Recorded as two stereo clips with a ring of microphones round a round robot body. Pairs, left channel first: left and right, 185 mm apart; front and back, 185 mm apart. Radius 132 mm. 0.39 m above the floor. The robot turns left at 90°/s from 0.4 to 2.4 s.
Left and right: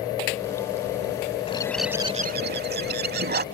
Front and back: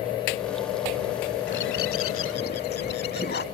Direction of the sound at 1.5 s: 30° left.